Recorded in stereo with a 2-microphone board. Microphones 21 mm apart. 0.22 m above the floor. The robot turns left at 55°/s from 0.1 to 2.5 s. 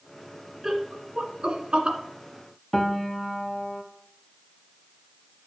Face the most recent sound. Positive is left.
turn(degrees=25)  # may be behind; listen again after turning